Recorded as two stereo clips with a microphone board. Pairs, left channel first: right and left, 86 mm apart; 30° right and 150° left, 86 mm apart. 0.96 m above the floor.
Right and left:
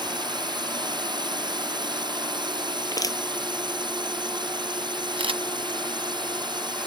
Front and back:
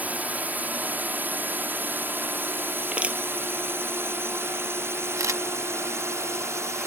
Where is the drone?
80° left; by 6.9 s 100° left.